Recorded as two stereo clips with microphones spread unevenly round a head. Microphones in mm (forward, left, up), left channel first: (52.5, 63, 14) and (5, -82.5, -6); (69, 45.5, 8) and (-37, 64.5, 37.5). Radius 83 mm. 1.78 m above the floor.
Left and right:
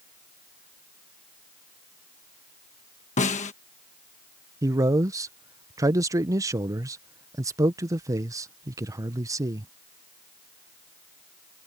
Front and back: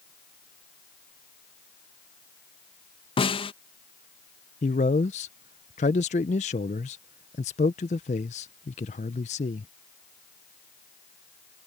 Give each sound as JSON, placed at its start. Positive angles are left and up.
{"t": 3.2, "sound": "a snare drum", "azimuth_deg": 30}
{"t": 4.6, "sound": "a man speaking", "azimuth_deg": -40}